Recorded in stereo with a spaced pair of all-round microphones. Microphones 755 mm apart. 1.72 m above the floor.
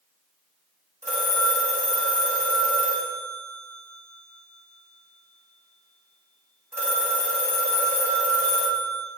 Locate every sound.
1.0 s a phone ringing: 5° right (ahead or behind), 1.8 m